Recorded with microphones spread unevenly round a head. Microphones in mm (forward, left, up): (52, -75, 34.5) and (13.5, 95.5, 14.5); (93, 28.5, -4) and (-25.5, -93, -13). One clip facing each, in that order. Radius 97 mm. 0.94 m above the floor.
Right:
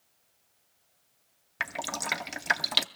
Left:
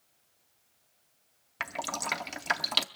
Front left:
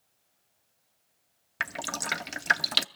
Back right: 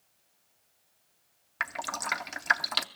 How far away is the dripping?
About 0.5 m.